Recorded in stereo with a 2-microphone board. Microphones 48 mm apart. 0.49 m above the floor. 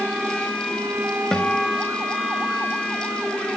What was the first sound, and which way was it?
A guitar, 10° left (ahead or behind).